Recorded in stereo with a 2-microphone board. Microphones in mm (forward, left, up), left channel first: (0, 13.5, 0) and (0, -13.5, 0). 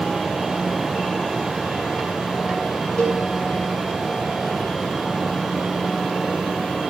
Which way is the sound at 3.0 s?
15° left (ahead or behind).